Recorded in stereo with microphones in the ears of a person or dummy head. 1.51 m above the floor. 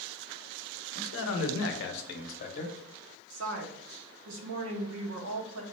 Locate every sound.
0.9 s a man speaking: 65° left (ahead or behind), 0.8 m; by 2.8 s 30° left (ahead or behind), 0.8 m
3.3 s a woman speaking: 70° right (ahead or behind), 0.7 m